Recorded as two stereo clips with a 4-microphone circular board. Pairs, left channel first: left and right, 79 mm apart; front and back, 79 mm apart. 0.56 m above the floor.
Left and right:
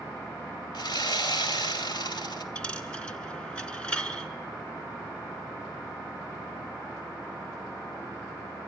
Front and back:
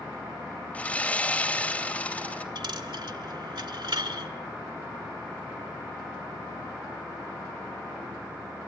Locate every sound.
0.7 s sawing: 70° left, 2.5 m
2.5 s a dropped coin: 165° left, 2.0 m